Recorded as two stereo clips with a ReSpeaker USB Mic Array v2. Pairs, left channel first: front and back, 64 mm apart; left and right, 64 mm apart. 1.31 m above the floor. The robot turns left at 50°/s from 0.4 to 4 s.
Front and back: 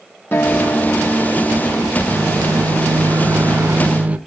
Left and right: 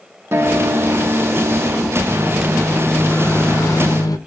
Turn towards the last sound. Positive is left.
turn(degrees=110)